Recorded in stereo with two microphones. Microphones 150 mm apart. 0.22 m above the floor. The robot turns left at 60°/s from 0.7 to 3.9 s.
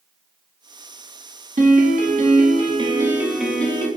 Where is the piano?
70° right, 0.6 m; by 3.9 s 155° left, 0.6 m.